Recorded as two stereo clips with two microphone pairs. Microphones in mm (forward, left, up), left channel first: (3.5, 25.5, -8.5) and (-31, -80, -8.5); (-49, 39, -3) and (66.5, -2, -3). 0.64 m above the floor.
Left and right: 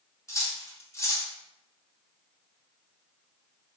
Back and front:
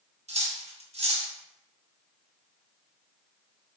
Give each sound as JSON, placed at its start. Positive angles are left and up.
{"t": 0.3, "sound": "cutlery clinking", "azimuth_deg": 10, "distance_m": 0.9}